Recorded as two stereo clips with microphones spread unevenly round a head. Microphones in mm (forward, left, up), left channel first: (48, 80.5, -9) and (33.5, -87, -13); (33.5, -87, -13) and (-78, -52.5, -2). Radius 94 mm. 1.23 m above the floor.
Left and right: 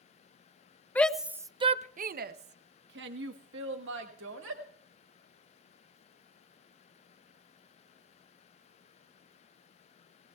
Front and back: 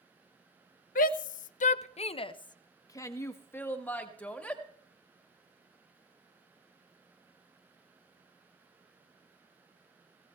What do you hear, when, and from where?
0.9 s a shout: 5° left, 0.7 m; by 4.6 s 100° right, 1.9 m